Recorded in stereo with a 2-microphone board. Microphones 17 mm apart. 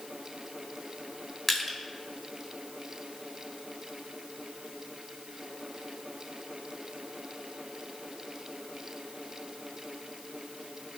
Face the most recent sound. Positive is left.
turn(degrees=5)  # may be behind; listen again after turning